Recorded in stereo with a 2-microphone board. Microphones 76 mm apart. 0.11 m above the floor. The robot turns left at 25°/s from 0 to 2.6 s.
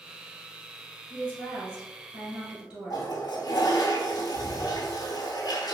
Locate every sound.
1.1 s a woman speaking: 5° right (ahead or behind), 1.4 m; by 3.1 s 20° right (ahead or behind), 1.4 m
2.9 s a toilet flushing: 65° left (ahead or behind), 0.6 m